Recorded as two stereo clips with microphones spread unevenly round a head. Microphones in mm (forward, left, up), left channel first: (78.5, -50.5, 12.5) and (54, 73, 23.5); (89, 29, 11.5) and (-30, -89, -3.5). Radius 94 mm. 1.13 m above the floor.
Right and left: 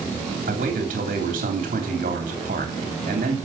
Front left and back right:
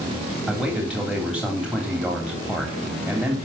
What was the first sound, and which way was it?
A man speaking, 140° left.